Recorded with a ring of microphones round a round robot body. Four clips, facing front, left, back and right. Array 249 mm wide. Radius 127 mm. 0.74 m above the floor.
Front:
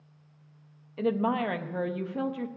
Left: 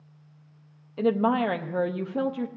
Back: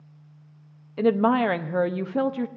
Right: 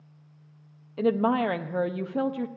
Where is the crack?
I don't hear a crack.